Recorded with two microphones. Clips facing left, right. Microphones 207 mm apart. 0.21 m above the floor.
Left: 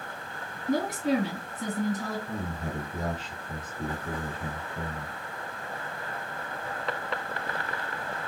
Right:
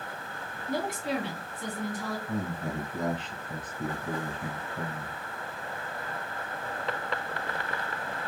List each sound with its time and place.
0.7 s a woman speaking: 45° left (ahead or behind), 2.0 m
2.3 s a man speaking: 30° left (ahead or behind), 1.9 m